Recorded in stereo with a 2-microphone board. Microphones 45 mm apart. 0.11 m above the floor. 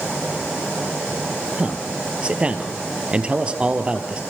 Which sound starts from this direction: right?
A man speaking, at 1.6 s.